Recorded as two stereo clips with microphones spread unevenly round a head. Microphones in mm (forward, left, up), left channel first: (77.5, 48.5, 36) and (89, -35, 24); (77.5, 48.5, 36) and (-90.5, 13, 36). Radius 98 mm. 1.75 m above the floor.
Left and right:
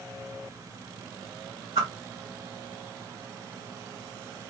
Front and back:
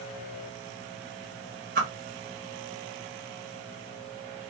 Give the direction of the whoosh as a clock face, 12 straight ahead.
5 o'clock.